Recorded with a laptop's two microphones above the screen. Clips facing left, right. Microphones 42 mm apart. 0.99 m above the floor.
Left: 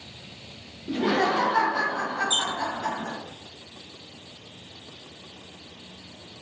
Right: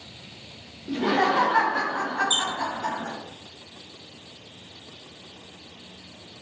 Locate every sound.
0.9 s laughter: 5° left (ahead or behind), 0.5 m; by 3.1 s 45° right (ahead or behind), 1.3 m
2.3 s a squeak: 55° right (ahead or behind), 1.4 m